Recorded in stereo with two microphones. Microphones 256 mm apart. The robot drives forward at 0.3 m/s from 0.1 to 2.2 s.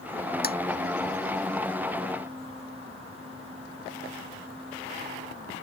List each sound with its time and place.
0.4 s tapping: 35° left (ahead or behind)